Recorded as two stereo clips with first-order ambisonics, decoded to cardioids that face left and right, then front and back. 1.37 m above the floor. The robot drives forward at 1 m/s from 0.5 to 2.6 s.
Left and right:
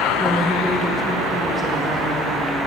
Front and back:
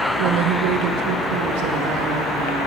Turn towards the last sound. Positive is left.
turn(degrees=180)